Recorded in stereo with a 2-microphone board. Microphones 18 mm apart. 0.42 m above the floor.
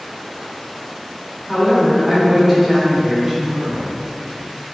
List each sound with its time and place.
1.5 s a woman speaking: 15° right (ahead or behind), 0.8 m